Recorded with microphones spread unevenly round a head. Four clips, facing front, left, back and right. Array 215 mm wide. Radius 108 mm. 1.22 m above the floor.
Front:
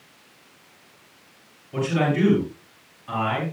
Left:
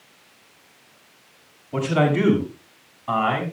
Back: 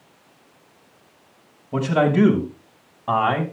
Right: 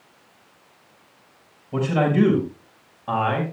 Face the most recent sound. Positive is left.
turn(degrees=-170)